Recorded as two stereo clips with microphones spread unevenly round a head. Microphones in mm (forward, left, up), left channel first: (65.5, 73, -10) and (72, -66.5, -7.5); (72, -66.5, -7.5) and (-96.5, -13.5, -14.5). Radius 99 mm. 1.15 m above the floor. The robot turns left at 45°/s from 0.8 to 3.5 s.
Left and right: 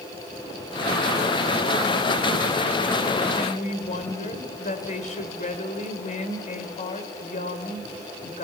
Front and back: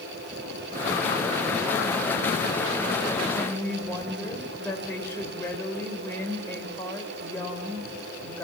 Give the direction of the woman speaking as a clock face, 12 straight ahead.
10 o'clock.